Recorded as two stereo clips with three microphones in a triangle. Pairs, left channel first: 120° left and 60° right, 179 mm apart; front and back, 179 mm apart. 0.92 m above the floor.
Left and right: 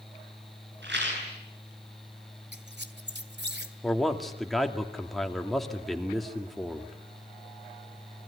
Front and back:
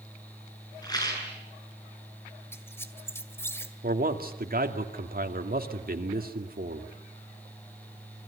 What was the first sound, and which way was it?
A rattle, 70° right.